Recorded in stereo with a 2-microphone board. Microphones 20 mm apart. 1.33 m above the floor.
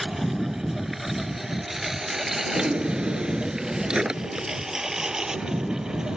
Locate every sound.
0.0 s a lawn mower: 5° left (ahead or behind); by 6.2 s 30° right (ahead or behind)
2.5 s a drawer: 35° right (ahead or behind)